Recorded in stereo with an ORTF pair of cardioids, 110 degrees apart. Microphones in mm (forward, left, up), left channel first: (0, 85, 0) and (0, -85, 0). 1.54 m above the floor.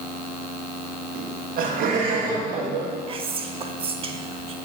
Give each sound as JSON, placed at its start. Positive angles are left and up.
{"t": 1.1, "sound": "laughter", "azimuth_deg": -60, "distance_m": 1.5}
{"t": 3.1, "sound": "whispering", "azimuth_deg": -35, "distance_m": 1.0}